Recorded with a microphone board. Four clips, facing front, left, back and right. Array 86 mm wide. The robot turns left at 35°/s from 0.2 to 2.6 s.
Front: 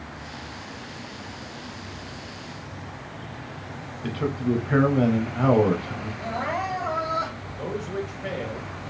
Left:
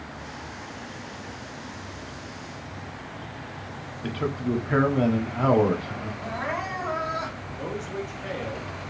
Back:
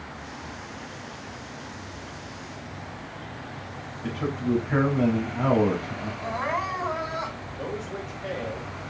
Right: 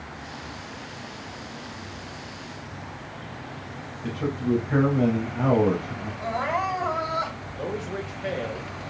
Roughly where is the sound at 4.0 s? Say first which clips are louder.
Right 2 dB, front 2 dB; ahead left.